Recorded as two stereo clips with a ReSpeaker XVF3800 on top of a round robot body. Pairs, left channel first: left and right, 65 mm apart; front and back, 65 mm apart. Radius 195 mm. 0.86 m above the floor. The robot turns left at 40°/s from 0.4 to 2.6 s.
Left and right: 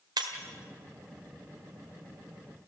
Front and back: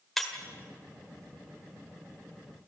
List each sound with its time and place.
0.2 s breaking glass: 90° right, 1.8 m